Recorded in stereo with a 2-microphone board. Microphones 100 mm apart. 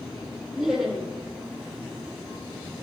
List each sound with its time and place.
0.5 s laughter: 5° right (ahead or behind), 5.5 m